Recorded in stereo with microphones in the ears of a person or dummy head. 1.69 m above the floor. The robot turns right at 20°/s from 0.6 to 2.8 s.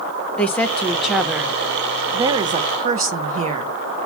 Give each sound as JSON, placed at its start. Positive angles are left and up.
{"t": 0.4, "sound": "a woman speaking", "azimuth_deg": 170, "distance_m": 0.5}